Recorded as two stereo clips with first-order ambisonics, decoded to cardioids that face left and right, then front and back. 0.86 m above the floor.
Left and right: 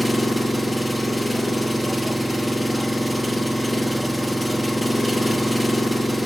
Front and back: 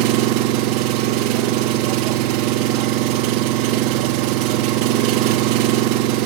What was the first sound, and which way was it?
An engine running, straight behind.